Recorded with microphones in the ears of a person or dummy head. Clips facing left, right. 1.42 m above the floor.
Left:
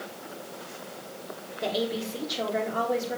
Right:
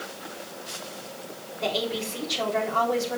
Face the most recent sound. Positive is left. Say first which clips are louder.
# even
turn(degrees=5)  # may be behind; listen again after turning